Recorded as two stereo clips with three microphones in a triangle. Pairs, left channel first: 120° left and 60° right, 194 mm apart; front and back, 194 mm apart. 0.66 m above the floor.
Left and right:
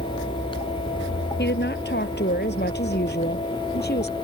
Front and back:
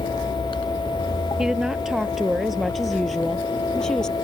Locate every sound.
1.4 s a woman speaking: 95° left; by 4.2 s 85° left